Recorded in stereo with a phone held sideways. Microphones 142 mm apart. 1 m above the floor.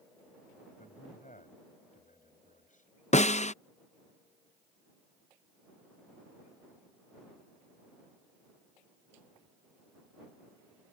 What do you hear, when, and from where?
0.8 s a man speaking: 65° left (ahead or behind)
3.1 s a snare drum: 55° left (ahead or behind)